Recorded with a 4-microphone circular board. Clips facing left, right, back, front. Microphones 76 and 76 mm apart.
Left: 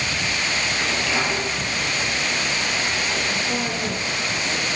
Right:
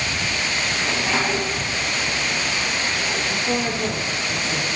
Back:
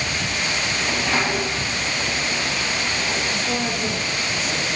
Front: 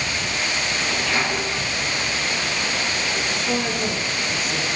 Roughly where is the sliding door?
Behind right.